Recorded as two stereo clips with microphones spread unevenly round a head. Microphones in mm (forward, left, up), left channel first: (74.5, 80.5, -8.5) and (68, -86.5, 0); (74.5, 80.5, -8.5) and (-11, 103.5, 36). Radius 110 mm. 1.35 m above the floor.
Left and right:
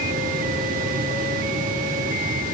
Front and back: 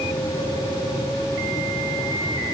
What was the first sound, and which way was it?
Only background noise.